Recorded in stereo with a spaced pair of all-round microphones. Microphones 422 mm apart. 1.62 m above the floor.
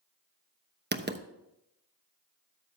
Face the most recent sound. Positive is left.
turn(degrees=-25)  # may be behind; listen again after turning